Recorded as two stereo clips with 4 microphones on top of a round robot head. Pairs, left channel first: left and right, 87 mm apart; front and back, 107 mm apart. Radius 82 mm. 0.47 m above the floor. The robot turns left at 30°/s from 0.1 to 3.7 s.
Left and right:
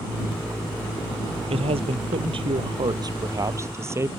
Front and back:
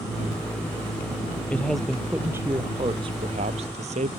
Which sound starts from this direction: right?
A man speaking, at 1.5 s.